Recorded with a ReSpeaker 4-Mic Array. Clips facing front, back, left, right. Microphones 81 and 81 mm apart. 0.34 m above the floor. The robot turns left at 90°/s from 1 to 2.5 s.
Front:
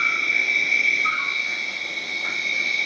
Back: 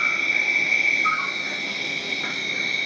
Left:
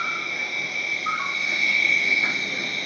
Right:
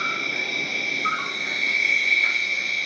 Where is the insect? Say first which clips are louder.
Front 1 dB, right 1 dB; 95° right, 2.5 m; by 2.9 s 130° left, 2.5 m.